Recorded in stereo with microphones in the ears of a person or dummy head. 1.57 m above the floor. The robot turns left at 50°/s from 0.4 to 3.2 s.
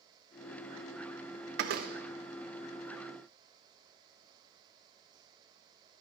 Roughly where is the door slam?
Right.